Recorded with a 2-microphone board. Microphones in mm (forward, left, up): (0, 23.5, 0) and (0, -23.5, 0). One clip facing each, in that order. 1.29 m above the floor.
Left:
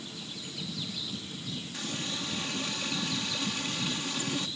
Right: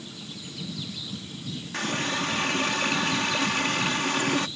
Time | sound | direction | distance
1.7 | a running tap | 60° right (ahead or behind) | ?